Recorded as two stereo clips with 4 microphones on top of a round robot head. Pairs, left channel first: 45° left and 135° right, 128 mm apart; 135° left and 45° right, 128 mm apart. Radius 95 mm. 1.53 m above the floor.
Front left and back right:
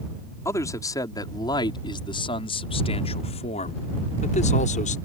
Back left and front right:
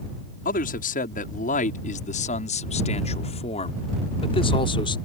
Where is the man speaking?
115° left; by 5.0 s 80° left.